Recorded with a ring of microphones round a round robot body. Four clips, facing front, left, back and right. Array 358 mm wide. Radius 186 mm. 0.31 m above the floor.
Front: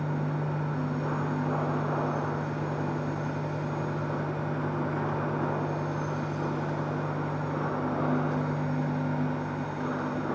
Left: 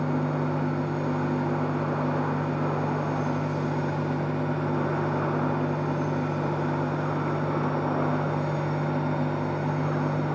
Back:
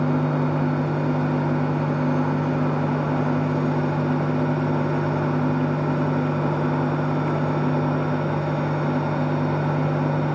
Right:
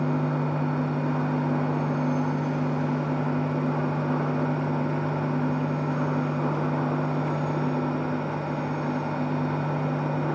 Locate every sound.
Only background noise.